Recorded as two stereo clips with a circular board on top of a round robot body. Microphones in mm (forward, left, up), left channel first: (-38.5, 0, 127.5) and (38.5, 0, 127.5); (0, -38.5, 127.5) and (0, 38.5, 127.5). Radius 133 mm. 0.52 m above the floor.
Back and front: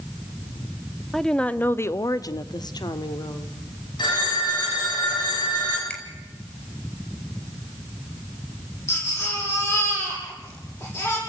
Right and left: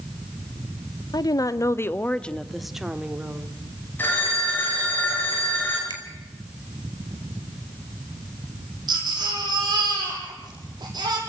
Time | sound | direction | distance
1.1 | a woman speaking | 95° right | 1.4 m
4.0 | a phone ringing | 155° right | 7.5 m
5.9 | a finger snap | 105° left | 5 m
8.9 | a baby crying | 125° left | 8 m